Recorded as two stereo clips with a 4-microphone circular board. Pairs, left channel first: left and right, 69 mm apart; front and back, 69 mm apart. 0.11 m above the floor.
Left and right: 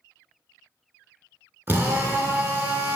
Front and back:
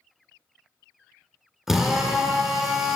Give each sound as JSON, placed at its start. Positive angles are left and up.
{"t": 1.7, "sound": "a drill", "azimuth_deg": -100, "distance_m": 0.5}